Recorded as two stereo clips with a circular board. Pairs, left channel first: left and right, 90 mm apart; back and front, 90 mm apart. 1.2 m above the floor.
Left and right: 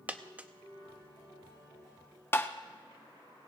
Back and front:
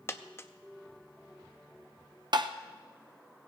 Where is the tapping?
30° left, 0.7 m.